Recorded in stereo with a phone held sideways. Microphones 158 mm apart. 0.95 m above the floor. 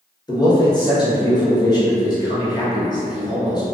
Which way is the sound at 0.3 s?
25° left (ahead or behind).